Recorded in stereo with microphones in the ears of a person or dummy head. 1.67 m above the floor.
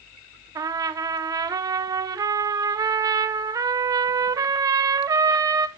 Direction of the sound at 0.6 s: 20° right (ahead or behind).